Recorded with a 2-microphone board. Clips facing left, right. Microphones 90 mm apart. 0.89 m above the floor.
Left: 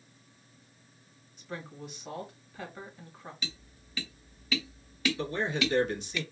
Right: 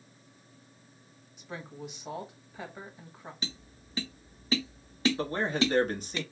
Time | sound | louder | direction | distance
1.4 | a woman speaking | even | 15° right (ahead or behind) | 1.9 m
3.4 | tapping | right 2 dB | 30° right (ahead or behind) | 0.7 m
5.2 | a man speaking | right 2 dB | 40° right (ahead or behind) | 1.3 m